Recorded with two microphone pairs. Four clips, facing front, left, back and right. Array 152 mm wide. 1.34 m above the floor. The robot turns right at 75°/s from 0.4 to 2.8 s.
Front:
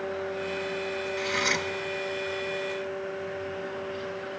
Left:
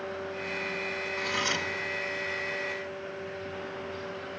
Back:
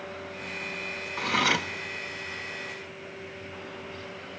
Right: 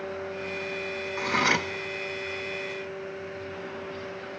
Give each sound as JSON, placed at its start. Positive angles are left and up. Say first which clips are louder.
{"t": 1.2, "sound": "cutlery clinking", "louder": "right 7 dB, back 5 dB", "azimuth_deg": -150, "distance_m": 0.9}